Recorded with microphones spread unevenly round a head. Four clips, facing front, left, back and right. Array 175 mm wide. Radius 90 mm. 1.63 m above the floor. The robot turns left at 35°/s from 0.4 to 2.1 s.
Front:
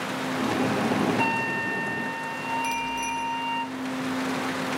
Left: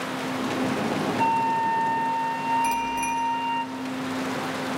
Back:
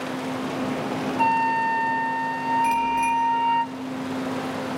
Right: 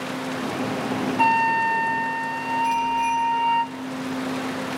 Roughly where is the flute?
Right.